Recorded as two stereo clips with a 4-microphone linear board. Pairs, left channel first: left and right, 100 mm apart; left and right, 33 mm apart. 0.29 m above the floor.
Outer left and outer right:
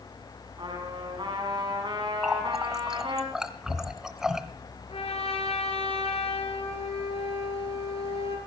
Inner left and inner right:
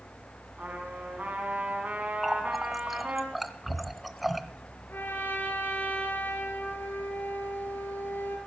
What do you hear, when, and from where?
0.6 s a trumpet: 50° right (ahead or behind), 2.5 m
2.2 s a running tap: 5° right (ahead or behind), 0.8 m
4.9 s a trumpet: 80° left, 2.5 m